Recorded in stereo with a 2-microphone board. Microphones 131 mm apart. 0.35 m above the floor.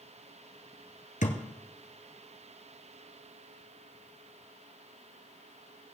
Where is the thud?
85° left, 1.9 m.